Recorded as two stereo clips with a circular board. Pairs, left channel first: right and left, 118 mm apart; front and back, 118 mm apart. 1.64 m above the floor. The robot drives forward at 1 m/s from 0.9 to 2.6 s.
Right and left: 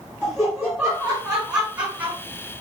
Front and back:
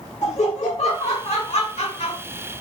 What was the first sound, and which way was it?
Laughter, 5° left.